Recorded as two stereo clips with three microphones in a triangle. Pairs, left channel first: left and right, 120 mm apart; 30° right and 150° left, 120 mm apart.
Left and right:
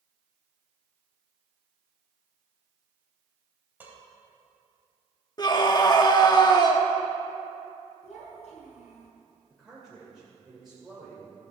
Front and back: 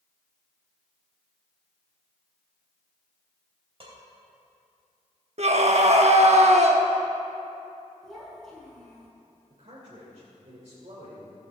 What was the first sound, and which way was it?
Dishes clattering, 165° right.